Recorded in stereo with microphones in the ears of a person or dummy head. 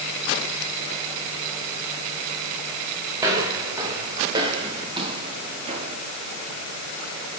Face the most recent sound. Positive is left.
turn(degrees=-35)  # may be behind; listen again after turning